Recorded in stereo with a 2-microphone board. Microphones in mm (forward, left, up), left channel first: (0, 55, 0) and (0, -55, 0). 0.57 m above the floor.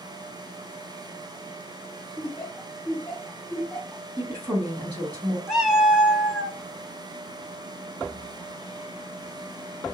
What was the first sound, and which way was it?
Laughter, 5° left (ahead or behind).